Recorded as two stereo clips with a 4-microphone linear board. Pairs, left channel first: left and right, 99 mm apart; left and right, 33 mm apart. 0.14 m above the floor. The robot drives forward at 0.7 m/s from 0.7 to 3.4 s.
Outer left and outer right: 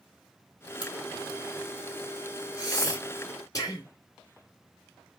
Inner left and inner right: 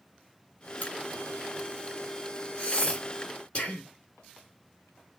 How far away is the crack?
About 1.3 m.